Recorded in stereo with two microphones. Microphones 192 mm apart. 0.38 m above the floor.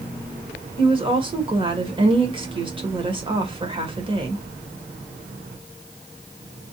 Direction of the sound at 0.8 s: 25° right (ahead or behind).